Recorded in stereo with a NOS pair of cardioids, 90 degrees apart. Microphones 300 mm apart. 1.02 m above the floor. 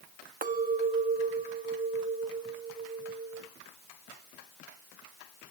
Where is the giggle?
No giggle in this recording.